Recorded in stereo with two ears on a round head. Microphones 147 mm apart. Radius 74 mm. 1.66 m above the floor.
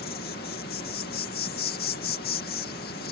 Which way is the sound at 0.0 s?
65° left (ahead or behind).